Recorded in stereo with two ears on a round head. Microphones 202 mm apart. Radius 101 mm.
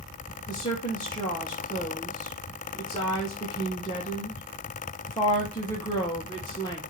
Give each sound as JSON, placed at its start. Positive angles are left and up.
{"t": 0.5, "sound": "a woman speaking", "side_deg": 20, "distance_m": 0.9}